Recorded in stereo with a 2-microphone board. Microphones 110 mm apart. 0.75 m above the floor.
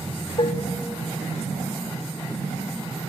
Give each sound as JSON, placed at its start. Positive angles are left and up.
{"t": 0.4, "sound": "dishes clattering", "side_deg": 55, "distance_m": 0.5}